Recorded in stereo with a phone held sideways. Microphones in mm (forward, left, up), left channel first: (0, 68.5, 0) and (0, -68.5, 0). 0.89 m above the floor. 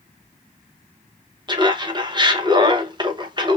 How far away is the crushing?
No crushing in this recording.